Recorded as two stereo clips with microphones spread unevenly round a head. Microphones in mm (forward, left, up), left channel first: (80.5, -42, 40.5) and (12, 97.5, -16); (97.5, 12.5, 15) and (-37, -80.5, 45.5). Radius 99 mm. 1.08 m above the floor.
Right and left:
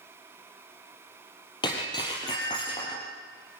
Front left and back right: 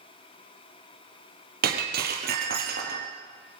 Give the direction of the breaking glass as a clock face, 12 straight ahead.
4 o'clock.